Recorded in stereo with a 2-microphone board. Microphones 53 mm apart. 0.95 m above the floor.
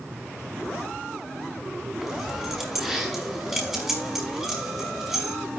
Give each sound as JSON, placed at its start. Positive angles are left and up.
{"t": 2.0, "sound": "keys jangling", "side_deg": -5, "distance_m": 5.0}